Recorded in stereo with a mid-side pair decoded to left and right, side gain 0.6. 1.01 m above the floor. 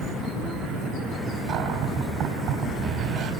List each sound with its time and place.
1.5 s a cupboard door: 65° right, 4.5 m